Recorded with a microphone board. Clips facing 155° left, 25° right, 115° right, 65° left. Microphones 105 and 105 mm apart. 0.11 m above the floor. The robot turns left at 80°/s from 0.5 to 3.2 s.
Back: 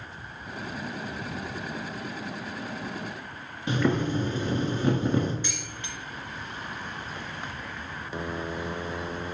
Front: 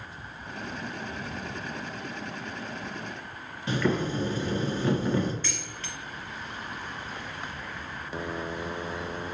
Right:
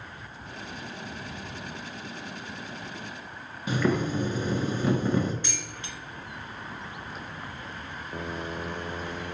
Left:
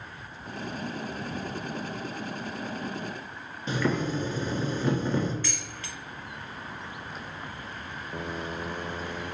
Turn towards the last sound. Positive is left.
turn(degrees=-155)